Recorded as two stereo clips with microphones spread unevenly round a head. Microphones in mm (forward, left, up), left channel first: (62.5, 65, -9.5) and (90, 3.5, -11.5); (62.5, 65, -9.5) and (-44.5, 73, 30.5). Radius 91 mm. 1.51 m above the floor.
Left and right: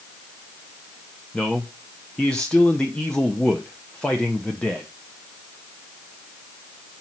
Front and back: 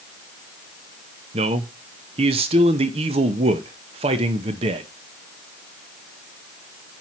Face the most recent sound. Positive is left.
turn(degrees=-165)